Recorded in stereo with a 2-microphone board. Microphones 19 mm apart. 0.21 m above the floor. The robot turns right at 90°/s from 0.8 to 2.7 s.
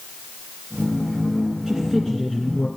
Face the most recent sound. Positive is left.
turn(degrees=80)